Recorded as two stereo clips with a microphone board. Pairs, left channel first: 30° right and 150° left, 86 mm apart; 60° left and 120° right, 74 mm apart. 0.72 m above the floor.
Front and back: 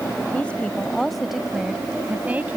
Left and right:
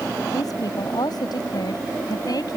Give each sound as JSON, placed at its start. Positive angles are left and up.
{"t": 0.3, "sound": "a woman speaking", "azimuth_deg": 40}